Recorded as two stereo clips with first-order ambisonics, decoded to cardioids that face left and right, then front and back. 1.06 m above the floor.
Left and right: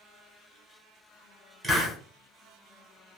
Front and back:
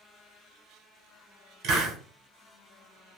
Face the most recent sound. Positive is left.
turn(degrees=-175)